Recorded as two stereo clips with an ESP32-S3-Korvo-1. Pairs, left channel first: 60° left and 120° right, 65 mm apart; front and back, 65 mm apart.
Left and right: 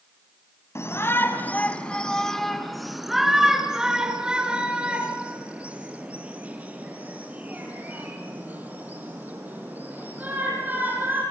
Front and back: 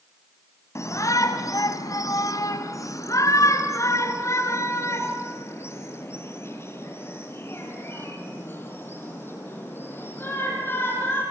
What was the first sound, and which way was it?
A shout, 25° left.